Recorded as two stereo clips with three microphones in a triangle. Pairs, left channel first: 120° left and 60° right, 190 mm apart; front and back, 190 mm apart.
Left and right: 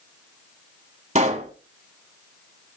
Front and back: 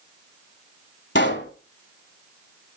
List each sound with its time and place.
1.1 s a pop: 10° right, 0.9 m